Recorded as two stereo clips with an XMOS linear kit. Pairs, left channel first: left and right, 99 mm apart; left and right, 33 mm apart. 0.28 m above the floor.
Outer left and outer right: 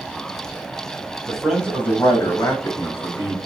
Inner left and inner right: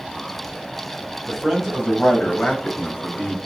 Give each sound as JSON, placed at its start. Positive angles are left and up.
{"t": 1.3, "sound": "a man speaking", "side_deg": -5, "distance_m": 1.3}